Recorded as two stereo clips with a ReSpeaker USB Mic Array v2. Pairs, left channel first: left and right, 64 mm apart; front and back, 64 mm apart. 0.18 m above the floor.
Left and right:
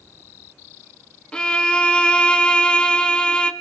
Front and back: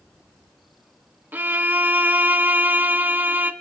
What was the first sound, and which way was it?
A violin, 150° left.